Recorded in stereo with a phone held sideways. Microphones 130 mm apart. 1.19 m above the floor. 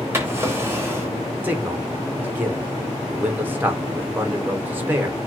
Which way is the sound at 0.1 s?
20° right (ahead or behind).